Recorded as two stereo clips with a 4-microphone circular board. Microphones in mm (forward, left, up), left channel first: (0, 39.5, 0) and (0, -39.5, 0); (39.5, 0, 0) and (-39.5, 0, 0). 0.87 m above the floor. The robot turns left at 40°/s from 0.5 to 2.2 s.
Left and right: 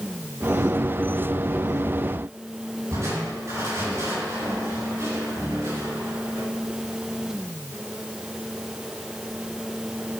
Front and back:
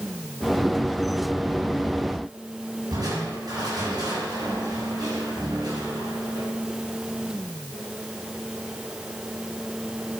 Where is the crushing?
145° right, 9 m.